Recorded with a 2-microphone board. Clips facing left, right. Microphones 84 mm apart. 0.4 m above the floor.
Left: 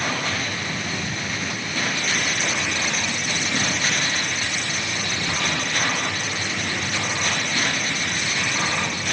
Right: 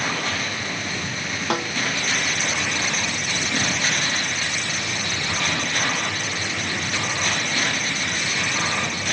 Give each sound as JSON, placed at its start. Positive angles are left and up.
{"t": 1.5, "sound": "a snare drum", "side_deg": -70}